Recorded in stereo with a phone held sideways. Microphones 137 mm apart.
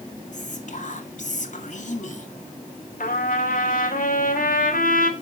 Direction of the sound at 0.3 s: 55° left (ahead or behind).